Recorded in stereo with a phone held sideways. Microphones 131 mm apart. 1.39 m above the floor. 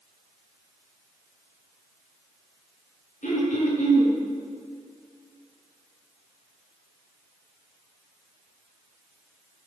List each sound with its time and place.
3.2 s throat clearing: 80° left, 5.5 m